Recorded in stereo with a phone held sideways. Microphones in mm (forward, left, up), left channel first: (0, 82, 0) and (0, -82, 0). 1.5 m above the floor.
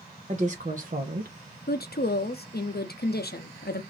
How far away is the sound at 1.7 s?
About 0.6 m.